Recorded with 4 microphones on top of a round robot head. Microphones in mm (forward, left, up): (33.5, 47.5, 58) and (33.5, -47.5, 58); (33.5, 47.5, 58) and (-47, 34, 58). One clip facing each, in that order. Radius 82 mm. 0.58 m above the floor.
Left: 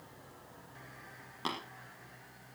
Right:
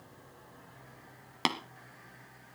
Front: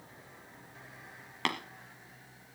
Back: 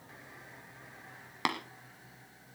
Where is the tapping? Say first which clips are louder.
Right 6 dB, back 1 dB; 90° right, 1.3 m.